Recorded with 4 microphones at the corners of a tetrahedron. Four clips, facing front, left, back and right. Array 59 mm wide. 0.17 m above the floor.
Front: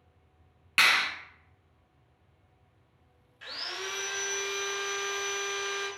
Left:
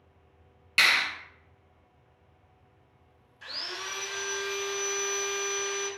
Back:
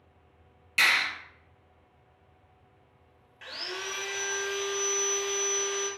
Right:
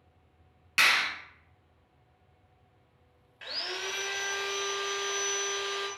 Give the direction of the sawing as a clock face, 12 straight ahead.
4 o'clock.